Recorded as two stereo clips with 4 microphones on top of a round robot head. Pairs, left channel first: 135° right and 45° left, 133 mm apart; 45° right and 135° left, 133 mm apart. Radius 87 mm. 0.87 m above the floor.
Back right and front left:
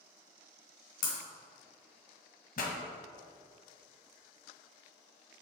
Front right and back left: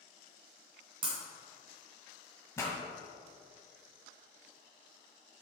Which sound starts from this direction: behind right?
A pop, at 2.6 s.